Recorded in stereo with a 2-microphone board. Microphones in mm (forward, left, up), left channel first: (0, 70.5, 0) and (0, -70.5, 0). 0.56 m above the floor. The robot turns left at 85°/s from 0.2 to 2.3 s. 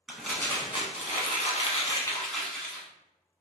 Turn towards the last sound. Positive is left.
turn(degrees=5)